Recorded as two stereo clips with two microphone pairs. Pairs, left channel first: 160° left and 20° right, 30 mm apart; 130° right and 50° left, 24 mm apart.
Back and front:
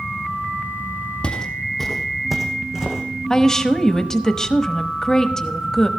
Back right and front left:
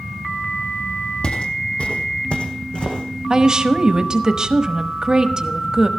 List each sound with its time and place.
1.2 s footsteps: 155° right, 1.4 m; by 3.0 s 95° right, 2.5 m
3.3 s a woman speaking: 95° left, 0.9 m